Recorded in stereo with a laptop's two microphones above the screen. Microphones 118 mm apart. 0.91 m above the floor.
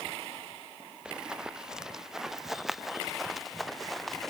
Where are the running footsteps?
5° right (ahead or behind); by 4.3 s centre (ahead or behind).